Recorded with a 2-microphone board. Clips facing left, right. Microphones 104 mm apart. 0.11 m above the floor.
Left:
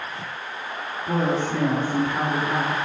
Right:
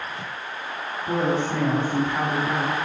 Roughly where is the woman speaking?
Centre.